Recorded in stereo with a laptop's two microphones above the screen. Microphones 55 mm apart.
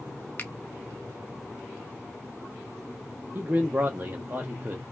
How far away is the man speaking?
About 0.6 m.